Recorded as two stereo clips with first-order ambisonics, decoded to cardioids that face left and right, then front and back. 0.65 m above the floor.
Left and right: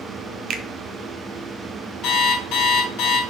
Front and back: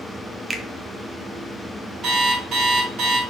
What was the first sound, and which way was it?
A finger snap, 110° right.